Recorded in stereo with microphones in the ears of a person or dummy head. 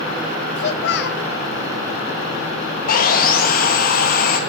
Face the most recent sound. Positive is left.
turn(degrees=45)  # may be behind; listen again after turning